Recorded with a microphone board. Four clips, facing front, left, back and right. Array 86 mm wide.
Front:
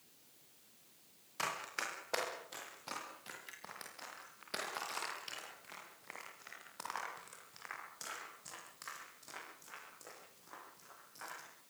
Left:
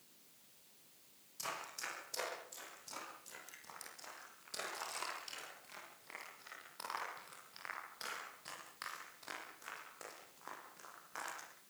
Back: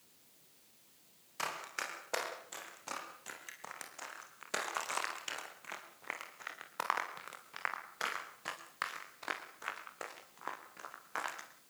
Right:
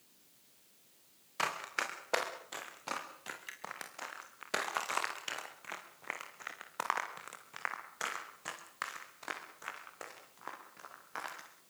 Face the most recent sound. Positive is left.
turn(degrees=-160)